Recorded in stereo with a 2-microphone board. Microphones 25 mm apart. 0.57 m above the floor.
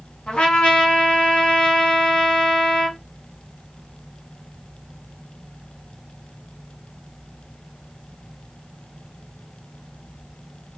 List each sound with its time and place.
0.3 s a trumpet: 45° left (ahead or behind), 1.5 m